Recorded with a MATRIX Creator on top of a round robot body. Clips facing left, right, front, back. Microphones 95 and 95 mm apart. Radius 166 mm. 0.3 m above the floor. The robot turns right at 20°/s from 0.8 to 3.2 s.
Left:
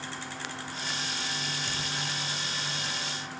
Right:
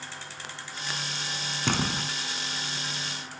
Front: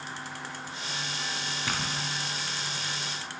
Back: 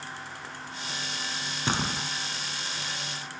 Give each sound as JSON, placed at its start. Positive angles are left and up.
{"t": 1.7, "sound": "a door slam", "azimuth_deg": -115}